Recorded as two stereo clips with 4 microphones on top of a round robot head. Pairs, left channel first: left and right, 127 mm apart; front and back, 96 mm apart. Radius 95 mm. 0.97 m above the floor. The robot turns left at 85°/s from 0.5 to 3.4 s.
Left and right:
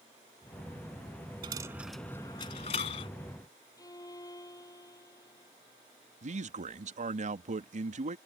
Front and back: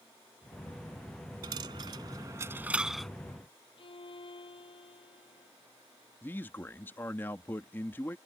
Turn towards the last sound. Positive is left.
turn(degrees=-75)